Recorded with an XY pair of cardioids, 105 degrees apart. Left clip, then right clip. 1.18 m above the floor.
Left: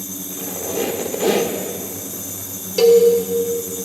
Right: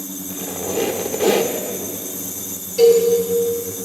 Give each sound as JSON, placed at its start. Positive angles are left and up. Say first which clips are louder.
{"t": 0.3, "sound": "a squeak", "louder": "right 2 dB", "azimuth_deg": -10, "distance_m": 0.7}
{"t": 2.8, "sound": "a cowbell", "louder": "left 1 dB", "azimuth_deg": 70, "distance_m": 1.4}